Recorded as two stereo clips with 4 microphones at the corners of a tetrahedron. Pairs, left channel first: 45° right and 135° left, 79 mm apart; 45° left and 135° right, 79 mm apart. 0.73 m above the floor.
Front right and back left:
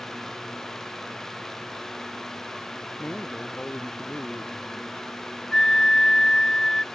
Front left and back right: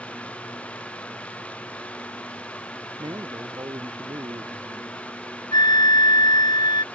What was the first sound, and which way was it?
A man speaking, 120° right.